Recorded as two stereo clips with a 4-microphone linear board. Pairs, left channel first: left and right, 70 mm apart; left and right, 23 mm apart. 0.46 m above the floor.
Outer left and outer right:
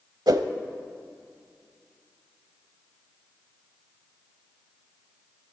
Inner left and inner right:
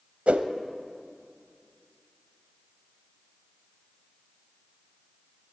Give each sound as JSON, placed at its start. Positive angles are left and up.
{"t": 0.3, "sound": "a whoosh", "side_deg": -75, "distance_m": 0.7}